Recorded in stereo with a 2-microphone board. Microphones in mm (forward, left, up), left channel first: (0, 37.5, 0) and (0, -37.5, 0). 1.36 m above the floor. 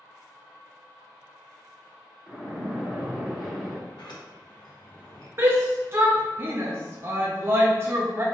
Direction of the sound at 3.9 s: 80° left.